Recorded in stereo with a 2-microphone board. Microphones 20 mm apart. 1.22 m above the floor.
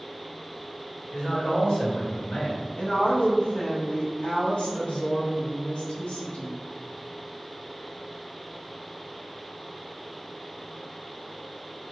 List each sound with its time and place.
1.1 s a man speaking: 75° left (ahead or behind), 1.7 m
2.8 s a woman speaking: 85° left, 1.2 m